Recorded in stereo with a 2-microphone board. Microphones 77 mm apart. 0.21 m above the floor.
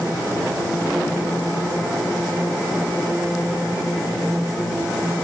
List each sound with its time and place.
Only background noise.